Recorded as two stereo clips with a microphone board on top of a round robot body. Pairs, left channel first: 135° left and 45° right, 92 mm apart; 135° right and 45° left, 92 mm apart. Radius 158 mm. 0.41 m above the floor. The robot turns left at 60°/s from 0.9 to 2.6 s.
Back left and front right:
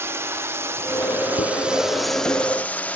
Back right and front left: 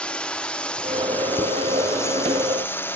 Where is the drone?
65° right; by 3.0 s 170° right.